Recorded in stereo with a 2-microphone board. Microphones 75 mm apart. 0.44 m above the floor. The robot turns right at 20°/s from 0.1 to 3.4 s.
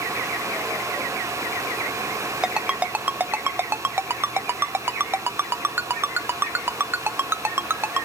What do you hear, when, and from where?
2.4 s a ringtone: 10° right (ahead or behind), 0.6 m; by 8.1 s 30° right (ahead or behind), 0.6 m